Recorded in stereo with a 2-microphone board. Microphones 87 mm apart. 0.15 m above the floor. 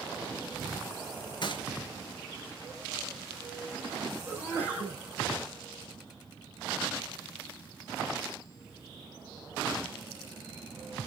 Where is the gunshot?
55° left (ahead or behind), 3 m.